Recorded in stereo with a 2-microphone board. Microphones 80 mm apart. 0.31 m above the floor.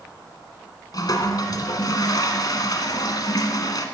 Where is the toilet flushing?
55° left (ahead or behind), 1.3 m.